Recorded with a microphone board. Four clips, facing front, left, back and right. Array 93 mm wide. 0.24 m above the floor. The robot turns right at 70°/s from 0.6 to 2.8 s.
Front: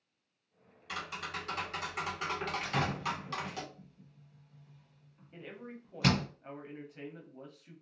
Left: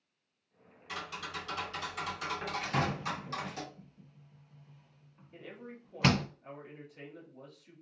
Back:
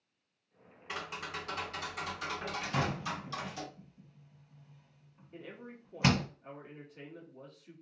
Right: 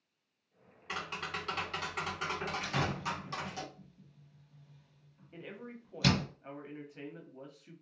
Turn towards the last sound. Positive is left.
turn(degrees=-60)